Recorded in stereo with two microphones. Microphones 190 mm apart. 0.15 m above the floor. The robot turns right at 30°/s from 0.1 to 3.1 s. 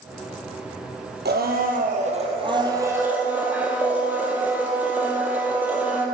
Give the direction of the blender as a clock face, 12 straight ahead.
2 o'clock.